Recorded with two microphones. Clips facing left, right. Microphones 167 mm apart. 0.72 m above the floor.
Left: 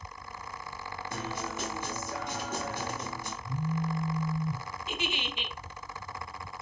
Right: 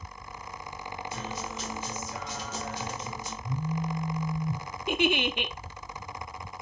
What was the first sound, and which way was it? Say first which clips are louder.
A guitar: left 3 dB; 50° left (ahead or behind).